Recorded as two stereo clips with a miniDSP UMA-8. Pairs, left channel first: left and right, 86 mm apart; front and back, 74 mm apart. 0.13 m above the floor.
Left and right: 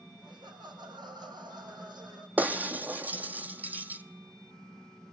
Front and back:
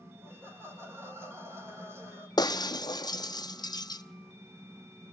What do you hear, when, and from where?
0.2 s laughter: 125° right, 7 m
2.4 s breaking glass: 20° right, 1.1 m